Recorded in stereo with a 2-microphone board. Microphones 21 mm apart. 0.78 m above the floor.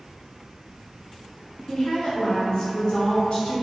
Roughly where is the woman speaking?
Left.